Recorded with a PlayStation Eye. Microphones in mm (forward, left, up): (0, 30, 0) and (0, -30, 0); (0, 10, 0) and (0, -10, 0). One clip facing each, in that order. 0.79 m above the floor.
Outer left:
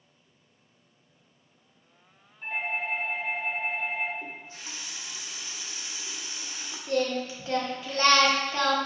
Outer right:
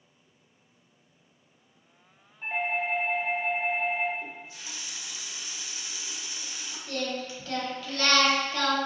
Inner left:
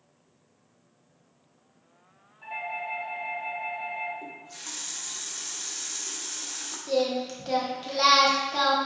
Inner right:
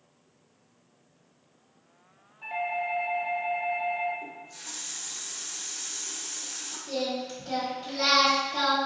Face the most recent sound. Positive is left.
turn(degrees=25)  # may be behind; listen again after turning